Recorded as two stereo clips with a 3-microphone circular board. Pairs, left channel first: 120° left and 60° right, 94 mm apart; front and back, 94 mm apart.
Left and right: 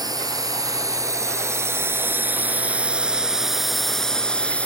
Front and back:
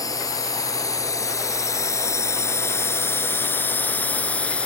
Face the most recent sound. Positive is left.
turn(degrees=60)